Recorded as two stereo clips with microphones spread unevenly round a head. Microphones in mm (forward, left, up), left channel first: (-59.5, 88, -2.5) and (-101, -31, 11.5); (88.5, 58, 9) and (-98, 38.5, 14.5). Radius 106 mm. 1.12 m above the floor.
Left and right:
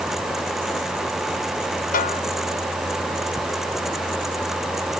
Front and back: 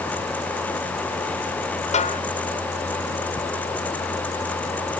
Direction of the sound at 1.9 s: 60° left.